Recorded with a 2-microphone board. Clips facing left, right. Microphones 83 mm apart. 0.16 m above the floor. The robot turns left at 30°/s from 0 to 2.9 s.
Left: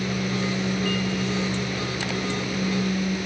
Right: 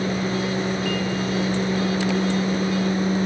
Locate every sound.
Only background noise.